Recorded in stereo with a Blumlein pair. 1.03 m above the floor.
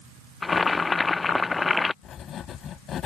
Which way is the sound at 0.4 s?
10° left.